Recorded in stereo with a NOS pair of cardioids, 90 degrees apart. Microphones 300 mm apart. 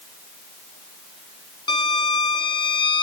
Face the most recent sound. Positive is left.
turn(degrees=15)